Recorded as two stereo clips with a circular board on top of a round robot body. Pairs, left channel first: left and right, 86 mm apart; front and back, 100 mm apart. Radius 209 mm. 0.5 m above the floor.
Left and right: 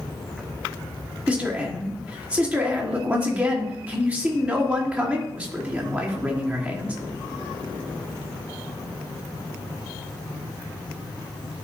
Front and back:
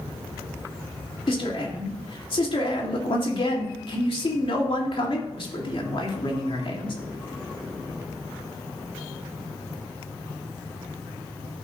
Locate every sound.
1.3 s a man speaking: 15° right, 2.5 m